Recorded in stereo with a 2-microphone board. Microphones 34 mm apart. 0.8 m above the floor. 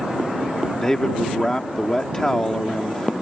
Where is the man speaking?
20° left (ahead or behind).